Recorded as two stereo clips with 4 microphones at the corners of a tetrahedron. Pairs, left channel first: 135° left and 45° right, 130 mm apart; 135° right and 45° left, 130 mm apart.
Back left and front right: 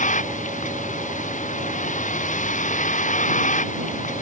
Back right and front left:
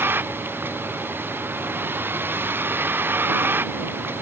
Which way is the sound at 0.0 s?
120° left.